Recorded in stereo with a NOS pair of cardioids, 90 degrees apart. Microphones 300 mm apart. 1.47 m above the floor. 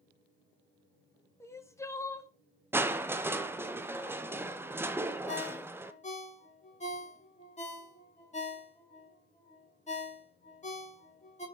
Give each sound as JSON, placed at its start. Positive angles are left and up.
{"t": 1.4, "sound": "crying", "azimuth_deg": 10, "distance_m": 0.8}
{"t": 2.7, "sound": "crushing", "azimuth_deg": -5, "distance_m": 0.7}
{"t": 5.3, "sound": "a ringtone", "azimuth_deg": 25, "distance_m": 2.0}